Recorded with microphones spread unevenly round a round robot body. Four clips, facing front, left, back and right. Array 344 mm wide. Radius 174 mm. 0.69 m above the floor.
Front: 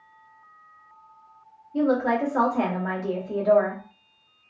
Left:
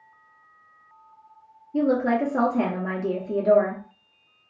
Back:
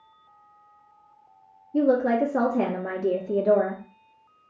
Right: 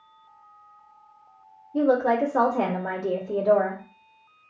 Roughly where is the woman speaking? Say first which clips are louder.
Right 1 dB, back 2 dB; behind left.